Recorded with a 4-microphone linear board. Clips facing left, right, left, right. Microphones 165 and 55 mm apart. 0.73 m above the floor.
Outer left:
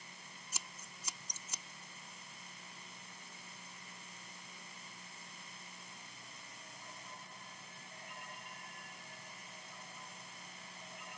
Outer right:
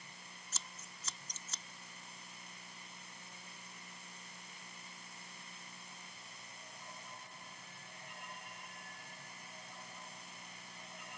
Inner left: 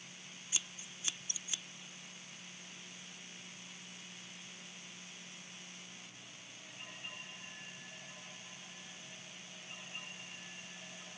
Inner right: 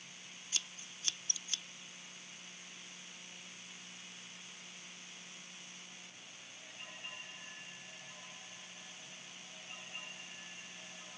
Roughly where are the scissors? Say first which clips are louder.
Even, even; centre.